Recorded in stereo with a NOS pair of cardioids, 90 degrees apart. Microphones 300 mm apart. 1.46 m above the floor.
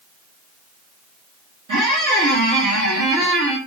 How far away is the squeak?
About 1.9 m.